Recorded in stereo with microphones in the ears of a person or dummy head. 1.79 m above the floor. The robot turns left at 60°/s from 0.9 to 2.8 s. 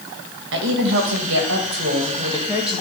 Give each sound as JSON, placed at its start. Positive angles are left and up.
{"t": 0.5, "sound": "a woman speaking", "azimuth_deg": -75, "distance_m": 2.0}